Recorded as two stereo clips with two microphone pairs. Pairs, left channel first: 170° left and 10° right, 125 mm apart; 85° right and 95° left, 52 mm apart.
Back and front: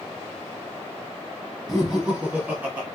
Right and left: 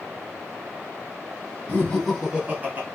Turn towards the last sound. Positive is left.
turn(degrees=60)